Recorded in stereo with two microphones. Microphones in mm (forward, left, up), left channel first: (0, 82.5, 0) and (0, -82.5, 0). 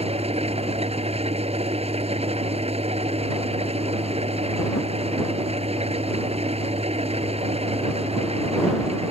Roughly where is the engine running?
Right.